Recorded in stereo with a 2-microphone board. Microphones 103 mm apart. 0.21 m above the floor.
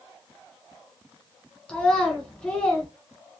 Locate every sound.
1.7 s a child speaking: 10° left (ahead or behind), 1.4 m